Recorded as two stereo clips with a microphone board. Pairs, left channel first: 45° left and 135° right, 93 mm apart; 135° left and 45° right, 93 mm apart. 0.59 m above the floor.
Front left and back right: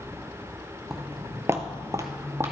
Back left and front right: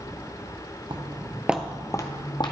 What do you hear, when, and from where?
0.9 s footsteps: 50° right, 1.1 m; by 2.5 s 165° left, 1.5 m